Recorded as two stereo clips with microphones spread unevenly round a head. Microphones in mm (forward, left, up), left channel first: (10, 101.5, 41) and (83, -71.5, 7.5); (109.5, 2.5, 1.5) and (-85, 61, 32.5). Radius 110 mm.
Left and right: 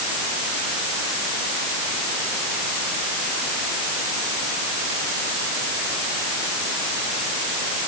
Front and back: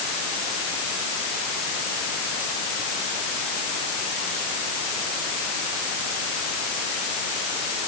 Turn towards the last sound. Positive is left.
No sound to turn to.